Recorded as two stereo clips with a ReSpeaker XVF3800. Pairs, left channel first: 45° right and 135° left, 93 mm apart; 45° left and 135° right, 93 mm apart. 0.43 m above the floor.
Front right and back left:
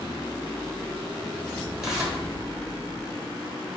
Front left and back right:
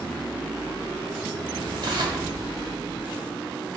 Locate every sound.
1.8 s tearing paper: 140° right, 1.0 m